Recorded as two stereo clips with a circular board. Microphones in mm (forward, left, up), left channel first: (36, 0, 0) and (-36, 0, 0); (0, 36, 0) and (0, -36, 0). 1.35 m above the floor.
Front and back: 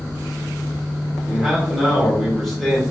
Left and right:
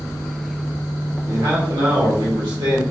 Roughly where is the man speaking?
Right.